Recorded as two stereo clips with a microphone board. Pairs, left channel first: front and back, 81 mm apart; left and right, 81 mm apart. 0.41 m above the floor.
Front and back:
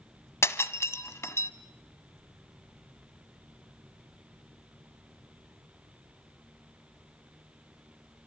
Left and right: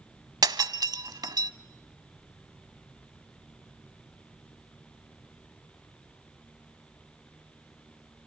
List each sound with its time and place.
0.4 s breaking glass: 55° right, 1.1 m